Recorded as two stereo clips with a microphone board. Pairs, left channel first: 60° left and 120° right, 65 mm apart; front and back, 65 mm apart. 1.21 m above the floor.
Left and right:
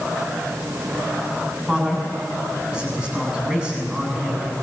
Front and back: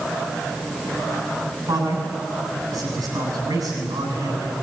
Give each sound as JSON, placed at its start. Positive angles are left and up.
{"t": 1.7, "sound": "a man speaking", "azimuth_deg": 165, "distance_m": 8.0}